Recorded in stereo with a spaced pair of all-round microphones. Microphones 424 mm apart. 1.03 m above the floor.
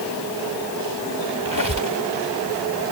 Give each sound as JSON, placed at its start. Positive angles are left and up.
{"t": 1.4, "sound": "a squeak", "side_deg": 50}